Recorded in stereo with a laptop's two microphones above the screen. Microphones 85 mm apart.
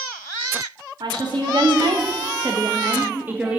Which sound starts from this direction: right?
A woman speaking, at 1.0 s.